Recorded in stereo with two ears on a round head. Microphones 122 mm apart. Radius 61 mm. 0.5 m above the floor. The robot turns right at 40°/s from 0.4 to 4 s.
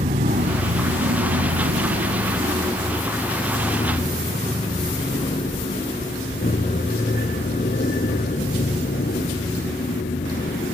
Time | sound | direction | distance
0.0 | an aircraft | 50° right (ahead or behind) | ?